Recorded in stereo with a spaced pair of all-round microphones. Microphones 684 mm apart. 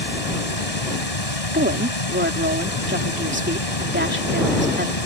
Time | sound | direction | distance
0.0 | running water | 60° left (ahead or behind) | ?
1.5 | a woman speaking | 15° right (ahead or behind) | ?